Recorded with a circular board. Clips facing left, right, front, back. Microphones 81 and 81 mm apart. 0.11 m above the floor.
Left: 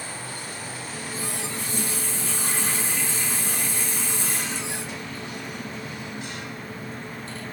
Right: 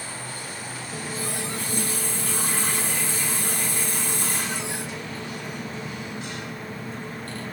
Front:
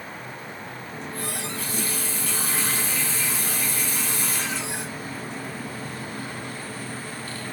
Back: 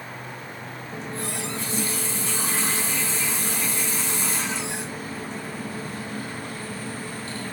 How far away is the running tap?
About 2 m.